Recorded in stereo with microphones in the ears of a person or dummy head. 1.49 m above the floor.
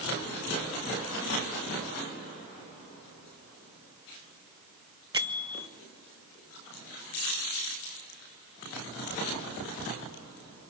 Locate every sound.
5.1 s a bell: 20° right (ahead or behind), 0.7 m